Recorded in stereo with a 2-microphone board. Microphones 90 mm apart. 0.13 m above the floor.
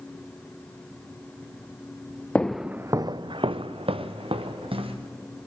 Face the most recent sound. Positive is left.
turn(degrees=-80)